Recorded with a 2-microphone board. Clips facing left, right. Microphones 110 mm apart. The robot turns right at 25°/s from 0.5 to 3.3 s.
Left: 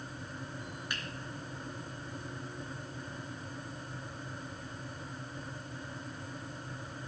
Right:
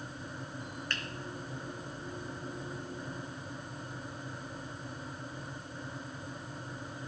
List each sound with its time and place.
0.9 s a finger snap: 10° left (ahead or behind), 2.5 m